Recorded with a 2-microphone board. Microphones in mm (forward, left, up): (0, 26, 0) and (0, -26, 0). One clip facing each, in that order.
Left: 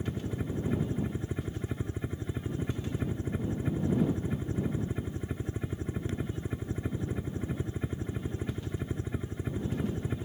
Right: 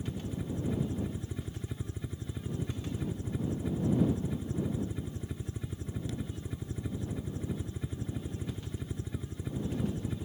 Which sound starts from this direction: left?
A helicopter, at 0.0 s.